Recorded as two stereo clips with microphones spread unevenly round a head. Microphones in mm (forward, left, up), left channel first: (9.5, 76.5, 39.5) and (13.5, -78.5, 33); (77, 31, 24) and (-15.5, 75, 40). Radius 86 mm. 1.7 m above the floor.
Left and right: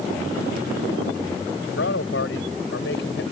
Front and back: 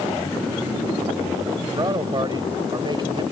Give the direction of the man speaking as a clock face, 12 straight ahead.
8 o'clock.